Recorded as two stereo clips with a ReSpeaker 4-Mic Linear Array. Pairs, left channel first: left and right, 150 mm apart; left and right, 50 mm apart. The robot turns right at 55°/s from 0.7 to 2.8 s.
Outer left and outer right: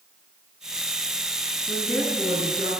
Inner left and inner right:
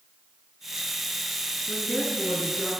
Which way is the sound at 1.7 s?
150° left.